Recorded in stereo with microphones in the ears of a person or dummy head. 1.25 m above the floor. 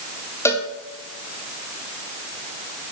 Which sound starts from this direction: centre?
A cowbell, at 0.5 s.